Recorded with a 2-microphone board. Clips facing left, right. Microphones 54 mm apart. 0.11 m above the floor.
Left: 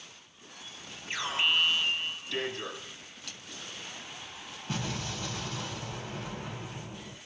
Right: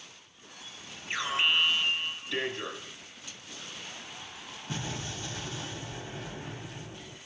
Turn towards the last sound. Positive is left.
turn(degrees=40)  # may be behind; listen again after turning